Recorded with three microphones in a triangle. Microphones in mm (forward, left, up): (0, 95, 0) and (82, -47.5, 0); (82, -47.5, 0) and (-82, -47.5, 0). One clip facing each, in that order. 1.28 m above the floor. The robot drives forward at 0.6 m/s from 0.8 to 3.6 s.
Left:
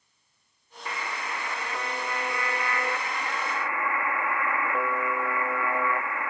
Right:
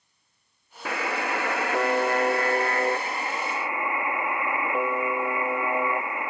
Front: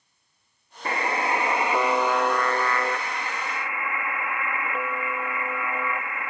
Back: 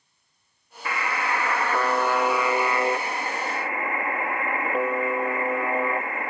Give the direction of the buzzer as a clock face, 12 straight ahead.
2 o'clock.